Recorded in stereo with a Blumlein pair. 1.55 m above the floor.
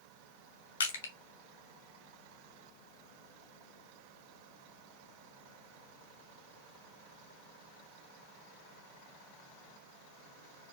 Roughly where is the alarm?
No alarm in this recording.